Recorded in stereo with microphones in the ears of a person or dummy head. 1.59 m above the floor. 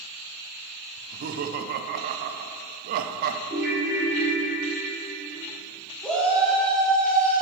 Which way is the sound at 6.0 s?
5° left (ahead or behind).